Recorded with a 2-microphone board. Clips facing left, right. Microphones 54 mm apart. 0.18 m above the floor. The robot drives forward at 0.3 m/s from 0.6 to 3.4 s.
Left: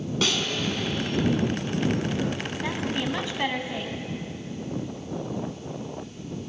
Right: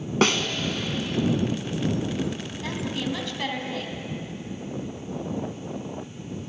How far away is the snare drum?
About 1.1 m.